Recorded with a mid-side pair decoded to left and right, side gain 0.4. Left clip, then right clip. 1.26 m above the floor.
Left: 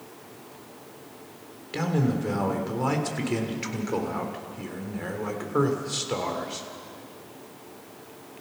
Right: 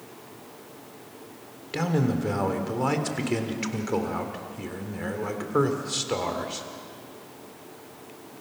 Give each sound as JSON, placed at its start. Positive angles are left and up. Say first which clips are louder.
{"t": 1.7, "sound": "a man speaking", "louder": "right 1 dB", "azimuth_deg": -15, "distance_m": 3.5}